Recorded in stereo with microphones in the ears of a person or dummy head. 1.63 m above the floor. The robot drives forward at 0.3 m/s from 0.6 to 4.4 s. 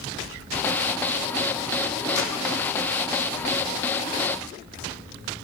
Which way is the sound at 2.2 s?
65° left (ahead or behind).